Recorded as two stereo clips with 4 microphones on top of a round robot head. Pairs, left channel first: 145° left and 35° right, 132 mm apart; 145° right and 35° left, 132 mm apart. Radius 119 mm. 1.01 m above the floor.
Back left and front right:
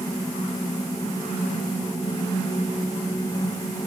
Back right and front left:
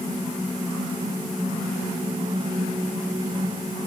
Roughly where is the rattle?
I don't hear a rattle.